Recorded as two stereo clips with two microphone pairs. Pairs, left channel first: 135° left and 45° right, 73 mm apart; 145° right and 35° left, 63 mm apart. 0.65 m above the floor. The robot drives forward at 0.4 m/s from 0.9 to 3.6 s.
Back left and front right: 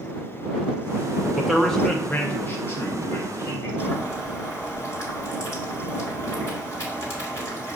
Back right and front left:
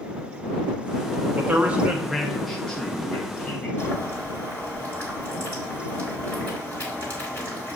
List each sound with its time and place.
1.4 s a man speaking: 40° left, 0.6 m; by 3.7 s 160° left, 0.9 m
3.8 s boiling: 170° left, 1.9 m